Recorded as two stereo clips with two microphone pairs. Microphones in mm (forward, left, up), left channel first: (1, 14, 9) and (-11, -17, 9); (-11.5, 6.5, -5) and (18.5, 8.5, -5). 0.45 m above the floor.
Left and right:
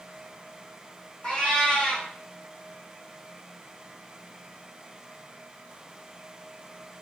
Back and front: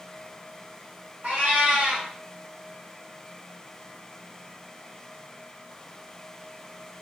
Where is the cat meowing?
15° left, 1.0 m.